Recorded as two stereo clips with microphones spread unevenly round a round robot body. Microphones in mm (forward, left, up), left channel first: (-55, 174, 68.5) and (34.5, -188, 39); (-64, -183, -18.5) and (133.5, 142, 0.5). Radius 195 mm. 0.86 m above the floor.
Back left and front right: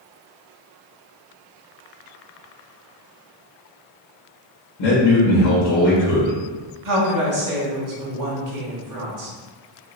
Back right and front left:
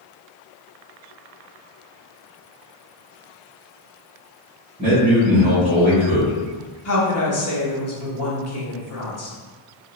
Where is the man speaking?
135° left, 1.9 m.